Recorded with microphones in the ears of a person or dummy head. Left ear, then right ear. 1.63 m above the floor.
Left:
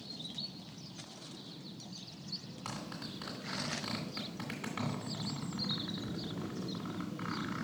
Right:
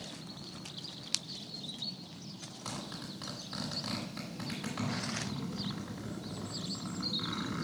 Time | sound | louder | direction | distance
2.6 | a zipper | right 2 dB | 15° left (ahead or behind) | 2 m